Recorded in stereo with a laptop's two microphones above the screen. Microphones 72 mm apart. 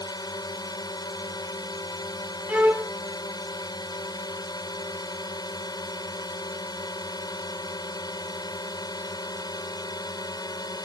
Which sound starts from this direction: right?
A violin, at 2.5 s.